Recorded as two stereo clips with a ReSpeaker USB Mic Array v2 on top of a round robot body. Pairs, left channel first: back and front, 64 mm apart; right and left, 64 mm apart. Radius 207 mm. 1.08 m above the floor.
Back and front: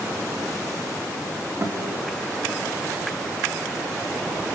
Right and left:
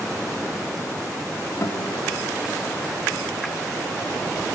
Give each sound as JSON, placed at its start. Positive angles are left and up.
{"t": 1.6, "sound": "a guitar", "azimuth_deg": -50, "distance_m": 3.0}